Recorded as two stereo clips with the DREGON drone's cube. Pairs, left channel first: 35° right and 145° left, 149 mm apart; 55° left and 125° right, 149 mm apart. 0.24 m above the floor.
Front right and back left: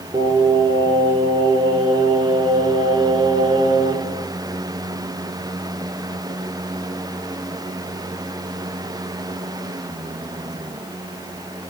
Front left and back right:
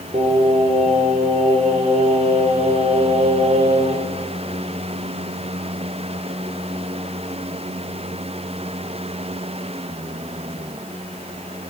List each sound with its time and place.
0.1 s singing: 160° right, 2.5 m